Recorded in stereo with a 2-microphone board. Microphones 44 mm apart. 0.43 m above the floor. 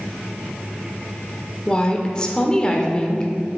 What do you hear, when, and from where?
1.7 s a woman speaking: 20° left (ahead or behind), 0.8 m